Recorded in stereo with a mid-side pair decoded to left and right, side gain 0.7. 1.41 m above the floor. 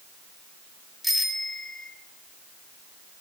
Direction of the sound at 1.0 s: Straight ahead.